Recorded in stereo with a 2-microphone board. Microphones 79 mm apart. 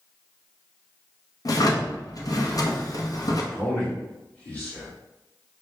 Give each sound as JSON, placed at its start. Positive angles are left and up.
{"t": 1.4, "sound": "a drawer", "side_deg": 50, "distance_m": 0.6}
{"t": 3.5, "sound": "a man speaking", "side_deg": 20, "distance_m": 1.4}